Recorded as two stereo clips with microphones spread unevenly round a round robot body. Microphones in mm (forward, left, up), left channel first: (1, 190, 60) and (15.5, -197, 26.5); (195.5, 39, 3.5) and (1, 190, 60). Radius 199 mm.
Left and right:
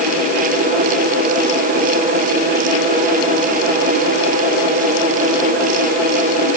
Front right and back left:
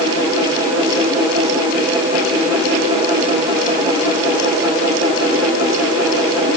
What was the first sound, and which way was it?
Only background noise.